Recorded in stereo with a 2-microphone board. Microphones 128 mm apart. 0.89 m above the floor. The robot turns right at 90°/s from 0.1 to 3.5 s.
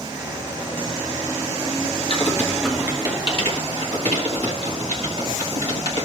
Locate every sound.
2.1 s typing on a keyboard: 45° left (ahead or behind), 1.4 m; by 6.0 s 55° right (ahead or behind), 1.4 m